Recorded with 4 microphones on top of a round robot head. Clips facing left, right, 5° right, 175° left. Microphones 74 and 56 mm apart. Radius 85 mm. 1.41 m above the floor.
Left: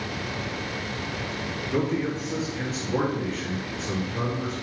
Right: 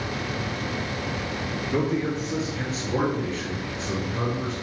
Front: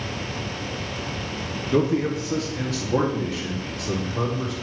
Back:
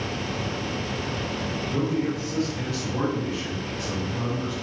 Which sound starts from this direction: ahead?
A man speaking, at 1.7 s.